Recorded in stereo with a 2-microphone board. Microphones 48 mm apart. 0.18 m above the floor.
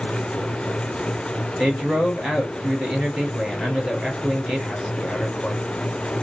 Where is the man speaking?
15° right (ahead or behind), 2.5 m.